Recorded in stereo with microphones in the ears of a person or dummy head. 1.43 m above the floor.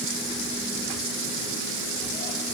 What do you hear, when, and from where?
Only background noise.